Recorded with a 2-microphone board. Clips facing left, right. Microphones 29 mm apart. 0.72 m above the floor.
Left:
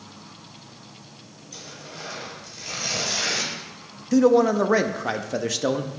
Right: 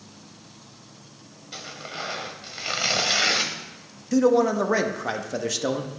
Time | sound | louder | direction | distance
1.5 | tearing paper | right 5 dB | 50° right (ahead or behind) | 1.0 m
4.1 | a man speaking | left 2 dB | 5° left (ahead or behind) | 0.5 m